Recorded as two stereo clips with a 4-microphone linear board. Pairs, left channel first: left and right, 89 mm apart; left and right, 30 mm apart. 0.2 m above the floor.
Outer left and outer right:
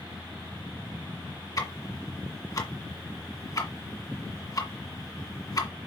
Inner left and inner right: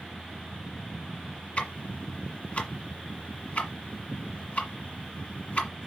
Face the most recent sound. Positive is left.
turn(degrees=45)  # may be behind; listen again after turning